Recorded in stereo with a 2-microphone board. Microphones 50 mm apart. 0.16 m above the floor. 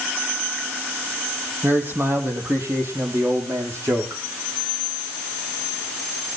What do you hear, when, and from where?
1.6 s a man speaking: 45° right (ahead or behind), 6.5 m; by 4.2 s 70° right (ahead or behind), 8 m